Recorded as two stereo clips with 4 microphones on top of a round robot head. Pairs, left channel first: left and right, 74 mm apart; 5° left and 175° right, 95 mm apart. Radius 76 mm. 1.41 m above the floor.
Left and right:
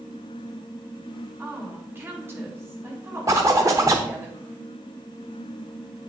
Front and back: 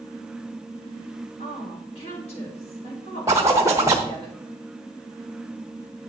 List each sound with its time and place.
1.4 s a woman speaking: 35° right, 3 m
3.3 s a zipper: 125° right, 0.6 m